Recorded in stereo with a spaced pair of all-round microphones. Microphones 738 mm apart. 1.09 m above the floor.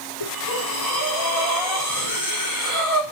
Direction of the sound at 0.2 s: 30° left (ahead or behind).